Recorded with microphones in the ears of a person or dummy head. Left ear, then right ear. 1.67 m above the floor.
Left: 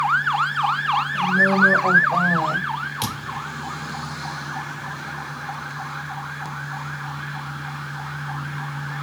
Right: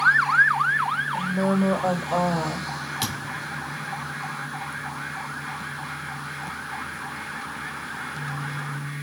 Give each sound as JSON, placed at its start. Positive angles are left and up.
{"t": 1.1, "sound": "a woman speaking", "side_deg": -40, "distance_m": 3.0}
{"t": 3.0, "sound": "a thud", "side_deg": 0, "distance_m": 2.0}